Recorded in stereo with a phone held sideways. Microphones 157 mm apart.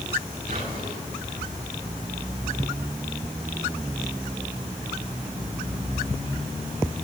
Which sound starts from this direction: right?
Whispering, at 0.5 s.